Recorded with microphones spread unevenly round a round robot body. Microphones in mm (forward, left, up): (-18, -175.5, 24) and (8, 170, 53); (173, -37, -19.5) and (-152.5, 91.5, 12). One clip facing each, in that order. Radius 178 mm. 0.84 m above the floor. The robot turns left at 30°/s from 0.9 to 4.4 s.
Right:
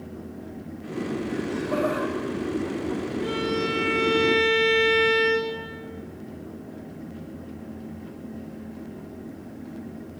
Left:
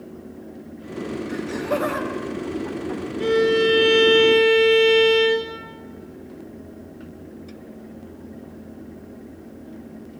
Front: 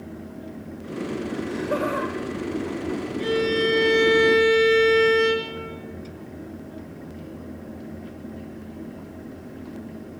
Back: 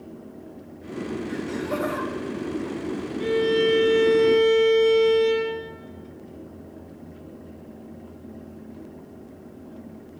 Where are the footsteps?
No footsteps in this recording.